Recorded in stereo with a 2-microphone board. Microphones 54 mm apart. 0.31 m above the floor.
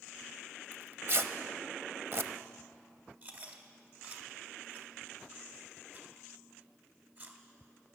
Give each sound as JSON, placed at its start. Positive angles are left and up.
{"t": 0.7, "sound": "tearing paper", "side_deg": -50, "distance_m": 0.7}
{"t": 3.2, "sound": "chewing", "side_deg": -35, "distance_m": 1.7}